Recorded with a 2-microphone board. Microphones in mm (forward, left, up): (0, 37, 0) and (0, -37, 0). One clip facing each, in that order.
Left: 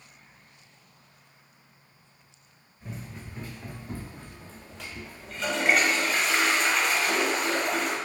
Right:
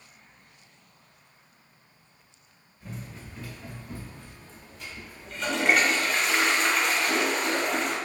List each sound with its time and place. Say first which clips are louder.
2.8 s running footsteps: even; 10° left (ahead or behind), 1.8 m; by 5.6 s 60° left (ahead or behind), 1.2 m
5.2 s a toilet flushing: right 1 dB; centre (ahead or behind), 0.7 m